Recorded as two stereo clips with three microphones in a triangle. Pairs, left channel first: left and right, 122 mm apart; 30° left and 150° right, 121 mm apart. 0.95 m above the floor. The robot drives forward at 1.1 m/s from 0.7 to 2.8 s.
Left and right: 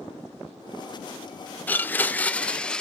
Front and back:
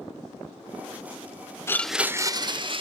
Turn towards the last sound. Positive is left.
turn(degrees=170)